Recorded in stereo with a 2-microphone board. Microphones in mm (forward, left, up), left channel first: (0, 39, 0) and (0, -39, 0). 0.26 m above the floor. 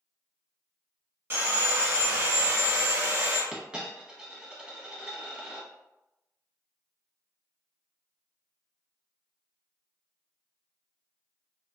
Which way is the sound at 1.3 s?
35° right (ahead or behind).